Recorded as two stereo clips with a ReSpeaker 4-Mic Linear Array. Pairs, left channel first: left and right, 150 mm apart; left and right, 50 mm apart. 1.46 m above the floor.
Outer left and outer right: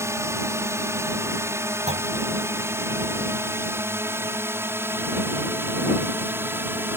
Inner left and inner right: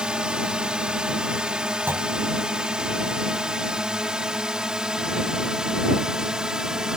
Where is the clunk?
50° right (ahead or behind).